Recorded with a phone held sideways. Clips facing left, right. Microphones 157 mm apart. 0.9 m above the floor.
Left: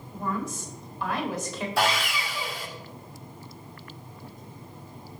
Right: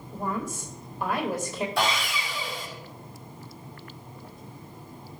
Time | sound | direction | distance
0.1 | a woman speaking | 50° right (ahead or behind) | 4 m
1.8 | sawing | centre (ahead or behind) | 4.5 m